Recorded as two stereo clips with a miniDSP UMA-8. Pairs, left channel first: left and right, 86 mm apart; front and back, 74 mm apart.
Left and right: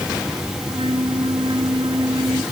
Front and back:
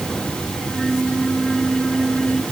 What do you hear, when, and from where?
0.6 s a flute: 90° right